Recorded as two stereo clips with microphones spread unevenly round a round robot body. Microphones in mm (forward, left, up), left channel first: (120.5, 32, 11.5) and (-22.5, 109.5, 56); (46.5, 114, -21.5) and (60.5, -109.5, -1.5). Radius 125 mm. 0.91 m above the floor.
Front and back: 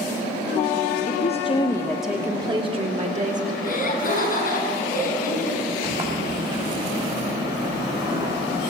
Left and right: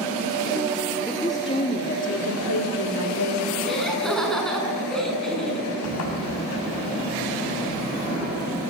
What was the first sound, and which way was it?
A woman speaking, 10° left.